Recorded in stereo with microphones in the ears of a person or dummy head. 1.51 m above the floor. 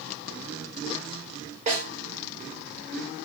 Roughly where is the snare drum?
Right.